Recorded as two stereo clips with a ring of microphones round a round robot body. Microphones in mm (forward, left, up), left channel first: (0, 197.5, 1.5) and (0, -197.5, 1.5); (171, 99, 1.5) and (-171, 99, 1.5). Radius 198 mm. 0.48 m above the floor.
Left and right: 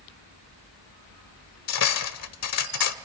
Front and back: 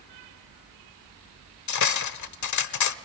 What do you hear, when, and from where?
1.7 s cutlery clinking: 40° left, 1.1 m